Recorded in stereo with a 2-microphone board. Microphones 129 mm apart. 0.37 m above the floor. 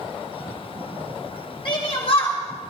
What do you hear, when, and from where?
1.6 s a shout: 40° left (ahead or behind), 3.5 m; by 2.7 s 55° left (ahead or behind), 2.5 m